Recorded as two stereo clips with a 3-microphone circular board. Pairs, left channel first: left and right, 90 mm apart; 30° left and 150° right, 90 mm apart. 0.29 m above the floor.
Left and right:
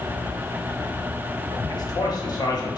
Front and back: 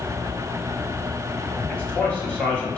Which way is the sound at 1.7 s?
100° left.